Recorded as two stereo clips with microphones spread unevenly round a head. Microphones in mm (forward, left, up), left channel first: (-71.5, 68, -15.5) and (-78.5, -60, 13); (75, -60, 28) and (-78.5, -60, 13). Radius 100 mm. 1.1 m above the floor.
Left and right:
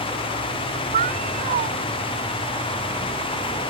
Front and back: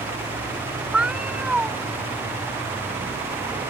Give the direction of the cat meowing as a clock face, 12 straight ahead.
3 o'clock.